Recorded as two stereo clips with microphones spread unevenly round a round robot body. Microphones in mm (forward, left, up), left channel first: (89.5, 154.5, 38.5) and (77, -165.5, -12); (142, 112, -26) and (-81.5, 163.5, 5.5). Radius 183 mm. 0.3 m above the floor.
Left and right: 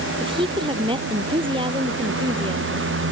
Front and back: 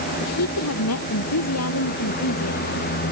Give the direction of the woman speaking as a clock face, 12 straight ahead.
1 o'clock.